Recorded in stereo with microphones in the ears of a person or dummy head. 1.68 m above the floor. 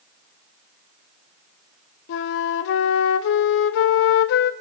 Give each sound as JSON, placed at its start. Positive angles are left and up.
{"t": 2.1, "sound": "a flute", "side_deg": 65, "distance_m": 0.9}